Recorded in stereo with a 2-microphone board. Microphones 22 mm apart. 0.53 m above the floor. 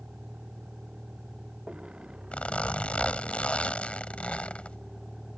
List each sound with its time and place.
0.0 s a vehicle: 65° right (ahead or behind); by 5.4 s 10° right (ahead or behind)
2.3 s a zipper: 70° left (ahead or behind)